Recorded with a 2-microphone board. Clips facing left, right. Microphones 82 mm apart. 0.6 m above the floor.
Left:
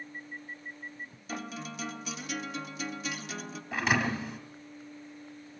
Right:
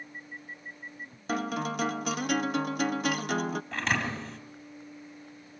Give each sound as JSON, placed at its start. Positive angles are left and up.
{"t": 1.3, "sound": "a guitar", "side_deg": -55, "distance_m": 0.6}
{"t": 3.7, "sound": "a thud", "side_deg": 5, "distance_m": 2.0}